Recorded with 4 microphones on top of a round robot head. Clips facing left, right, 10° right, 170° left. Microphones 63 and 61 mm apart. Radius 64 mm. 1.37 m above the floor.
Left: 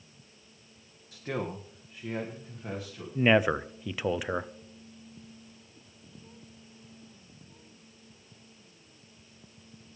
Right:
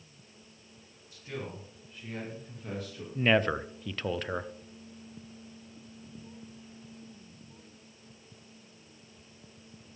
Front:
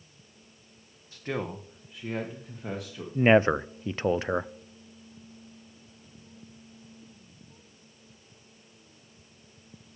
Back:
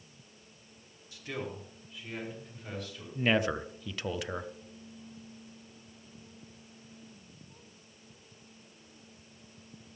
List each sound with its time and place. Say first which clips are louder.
1.1 s a man speaking: left 6 dB, front 6 dB; 45° left, 1.0 m; by 3.0 s 5° left, 2 m
3.1 s a man speaking: left 3 dB, front 8 dB; 15° left, 0.5 m